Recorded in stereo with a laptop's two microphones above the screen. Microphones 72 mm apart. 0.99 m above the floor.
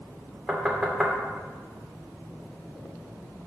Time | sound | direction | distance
0.5 | knocking | 5° right (ahead or behind) | 2.5 m